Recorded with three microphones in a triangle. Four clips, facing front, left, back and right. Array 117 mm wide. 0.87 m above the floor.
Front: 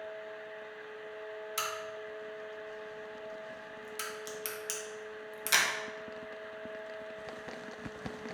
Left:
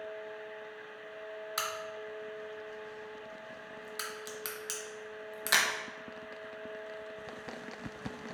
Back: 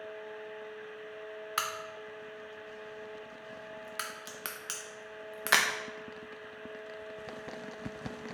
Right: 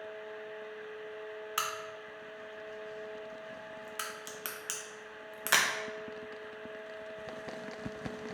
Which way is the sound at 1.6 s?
170° right.